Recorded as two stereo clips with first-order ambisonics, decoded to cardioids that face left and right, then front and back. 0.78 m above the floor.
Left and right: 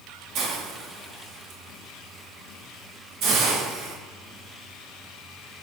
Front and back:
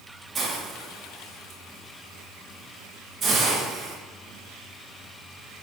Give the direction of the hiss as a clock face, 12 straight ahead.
4 o'clock.